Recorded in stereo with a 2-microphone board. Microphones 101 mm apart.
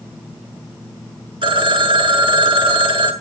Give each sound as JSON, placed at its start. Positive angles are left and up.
{"t": 1.4, "sound": "a phone ringing", "side_deg": -55, "distance_m": 1.5}